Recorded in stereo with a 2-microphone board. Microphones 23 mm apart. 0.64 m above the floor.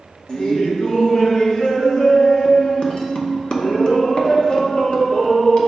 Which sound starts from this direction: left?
Laughter, at 0.3 s.